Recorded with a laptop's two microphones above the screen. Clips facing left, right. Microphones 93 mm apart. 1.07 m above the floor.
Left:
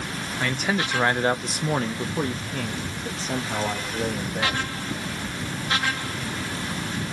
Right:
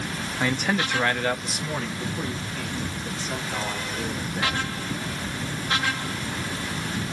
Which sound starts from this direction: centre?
A man speaking, at 0.4 s.